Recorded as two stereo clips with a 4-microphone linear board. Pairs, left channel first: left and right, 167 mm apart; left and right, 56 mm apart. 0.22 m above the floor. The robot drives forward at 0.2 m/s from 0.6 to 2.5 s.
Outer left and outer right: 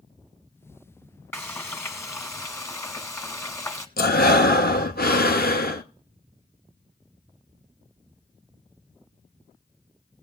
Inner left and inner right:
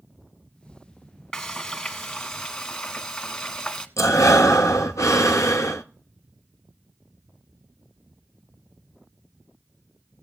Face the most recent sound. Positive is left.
turn(degrees=80)